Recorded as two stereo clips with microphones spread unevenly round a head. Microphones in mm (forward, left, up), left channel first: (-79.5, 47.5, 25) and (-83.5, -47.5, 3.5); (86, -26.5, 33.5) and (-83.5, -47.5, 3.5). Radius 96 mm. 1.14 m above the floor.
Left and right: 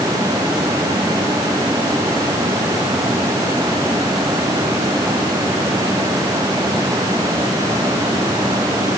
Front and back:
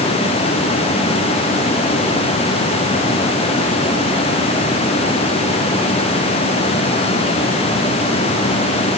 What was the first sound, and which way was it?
Only background noise.